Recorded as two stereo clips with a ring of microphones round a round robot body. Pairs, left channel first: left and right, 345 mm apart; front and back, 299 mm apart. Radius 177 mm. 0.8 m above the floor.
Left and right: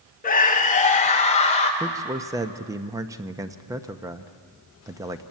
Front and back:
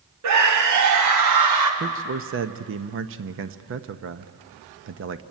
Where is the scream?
155° left, 1.6 m; by 1.7 s 160° left, 3.5 m.